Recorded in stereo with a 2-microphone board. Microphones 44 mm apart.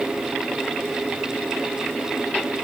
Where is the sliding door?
I don't hear a sliding door.